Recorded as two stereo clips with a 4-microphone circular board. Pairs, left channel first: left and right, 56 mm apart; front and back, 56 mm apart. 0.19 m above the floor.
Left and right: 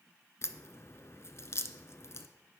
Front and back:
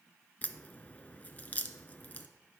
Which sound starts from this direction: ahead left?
A crack, at 0.4 s.